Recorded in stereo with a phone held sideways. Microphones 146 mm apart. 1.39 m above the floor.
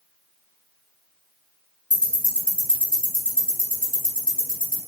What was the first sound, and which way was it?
Ticking, 60° right (ahead or behind).